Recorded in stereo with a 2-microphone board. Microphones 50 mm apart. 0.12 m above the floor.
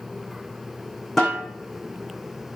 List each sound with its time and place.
1.2 s a snare drum: 5° left (ahead or behind), 4 m